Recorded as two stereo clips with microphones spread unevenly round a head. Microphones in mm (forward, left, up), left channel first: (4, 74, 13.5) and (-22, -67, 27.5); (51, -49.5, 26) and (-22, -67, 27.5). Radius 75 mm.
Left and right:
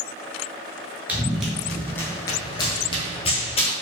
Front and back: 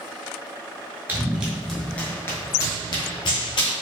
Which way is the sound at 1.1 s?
155° right.